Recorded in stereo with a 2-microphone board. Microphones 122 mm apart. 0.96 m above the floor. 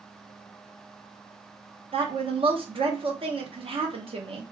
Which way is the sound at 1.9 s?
50° right (ahead or behind).